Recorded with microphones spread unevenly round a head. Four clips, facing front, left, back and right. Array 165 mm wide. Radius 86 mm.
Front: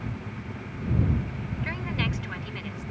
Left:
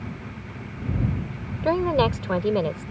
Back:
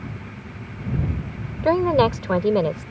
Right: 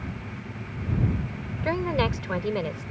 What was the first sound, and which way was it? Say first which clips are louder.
A woman speaking: left 5 dB, back 17 dB; 165° left.